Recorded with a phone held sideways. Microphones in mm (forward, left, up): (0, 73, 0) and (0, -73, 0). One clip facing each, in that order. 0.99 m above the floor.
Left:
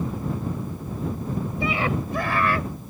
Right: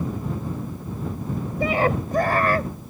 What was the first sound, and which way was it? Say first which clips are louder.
A scream: right 6 dB; 50° right (ahead or behind).